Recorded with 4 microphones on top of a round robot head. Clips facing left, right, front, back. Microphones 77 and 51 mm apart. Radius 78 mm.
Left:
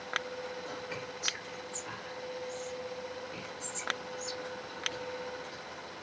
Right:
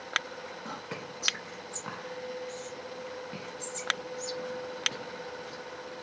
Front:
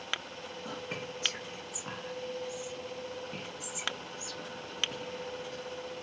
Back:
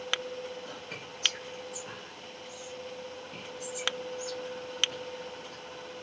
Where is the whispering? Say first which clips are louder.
Right 1 dB, front 3 dB; 70° right, 1.8 m.